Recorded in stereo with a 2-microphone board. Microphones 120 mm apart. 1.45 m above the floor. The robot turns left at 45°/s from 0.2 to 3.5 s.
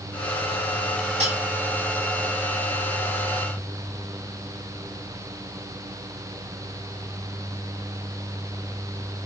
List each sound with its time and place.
1.2 s cutlery clinking: 70° right (ahead or behind), 6.5 m; by 1.4 s 60° right (ahead or behind), 6.5 m